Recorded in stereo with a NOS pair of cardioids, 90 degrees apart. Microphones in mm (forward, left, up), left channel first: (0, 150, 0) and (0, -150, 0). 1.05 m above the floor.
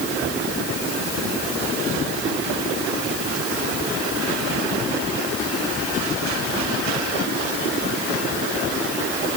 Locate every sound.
Only background noise.